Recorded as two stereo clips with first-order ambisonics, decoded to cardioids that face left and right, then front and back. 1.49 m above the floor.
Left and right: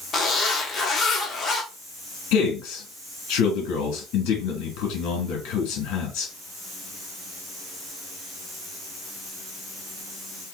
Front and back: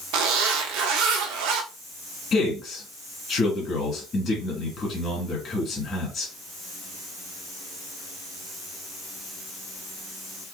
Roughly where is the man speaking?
Ahead left.